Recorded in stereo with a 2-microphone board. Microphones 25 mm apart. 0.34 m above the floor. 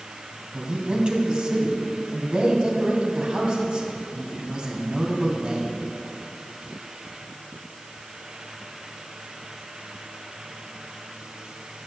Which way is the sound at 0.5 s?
45° right (ahead or behind).